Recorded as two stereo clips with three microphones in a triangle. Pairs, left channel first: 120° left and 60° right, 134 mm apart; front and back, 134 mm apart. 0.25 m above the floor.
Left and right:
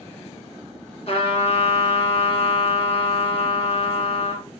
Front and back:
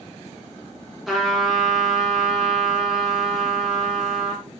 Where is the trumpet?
90° left, 1.5 m.